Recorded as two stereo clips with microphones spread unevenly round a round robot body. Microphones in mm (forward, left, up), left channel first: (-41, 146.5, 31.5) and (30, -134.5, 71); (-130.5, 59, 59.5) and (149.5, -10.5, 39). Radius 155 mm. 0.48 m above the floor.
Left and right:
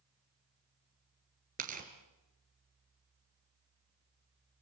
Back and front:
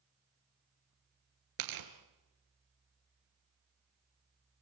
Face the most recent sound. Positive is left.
turn(degrees=-10)